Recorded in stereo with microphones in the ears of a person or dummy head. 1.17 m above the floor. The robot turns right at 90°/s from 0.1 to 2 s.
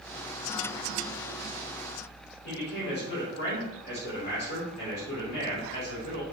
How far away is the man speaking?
About 4 m.